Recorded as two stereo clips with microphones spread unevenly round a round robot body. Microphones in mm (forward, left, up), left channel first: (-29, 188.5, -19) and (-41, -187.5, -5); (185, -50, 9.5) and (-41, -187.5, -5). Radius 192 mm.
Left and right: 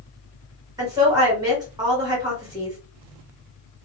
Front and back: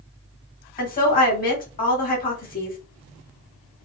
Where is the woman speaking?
15° right, 1.8 m.